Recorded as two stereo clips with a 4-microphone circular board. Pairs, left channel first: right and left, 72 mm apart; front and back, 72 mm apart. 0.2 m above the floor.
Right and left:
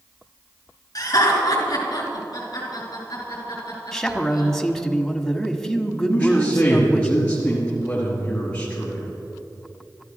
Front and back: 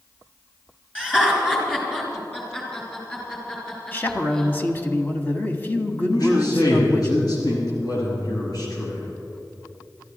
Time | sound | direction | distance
0.9 | laughter | 70° right | 3 m
3.9 | a man speaking | 10° right | 1.3 m
6.1 | a man speaking | 15° right | 4 m